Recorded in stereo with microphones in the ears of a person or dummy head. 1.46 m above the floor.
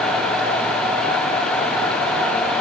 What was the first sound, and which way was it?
Only background noise.